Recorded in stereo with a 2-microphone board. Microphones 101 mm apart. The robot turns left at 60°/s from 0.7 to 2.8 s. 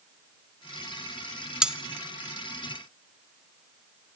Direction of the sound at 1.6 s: 10° right (ahead or behind).